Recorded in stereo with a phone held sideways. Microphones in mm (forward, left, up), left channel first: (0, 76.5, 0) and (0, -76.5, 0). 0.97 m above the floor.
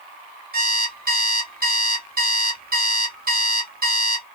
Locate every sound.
0.5 s an alarm clock: 70° right (ahead or behind), 1.1 m